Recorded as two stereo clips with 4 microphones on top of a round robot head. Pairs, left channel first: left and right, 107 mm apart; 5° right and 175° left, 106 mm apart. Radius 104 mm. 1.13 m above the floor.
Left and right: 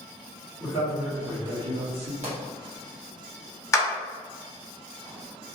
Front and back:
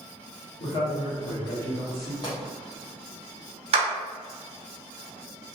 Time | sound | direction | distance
0.6 | a man speaking | 20° left | 1.2 m
2.2 | a pop | 65° right | 0.6 m
3.7 | a clap | 155° left | 0.7 m